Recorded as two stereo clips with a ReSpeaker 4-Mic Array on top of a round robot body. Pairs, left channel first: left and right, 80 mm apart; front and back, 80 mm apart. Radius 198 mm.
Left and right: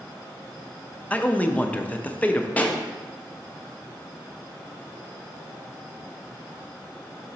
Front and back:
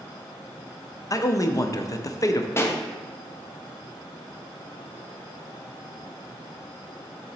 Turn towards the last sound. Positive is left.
turn(degrees=30)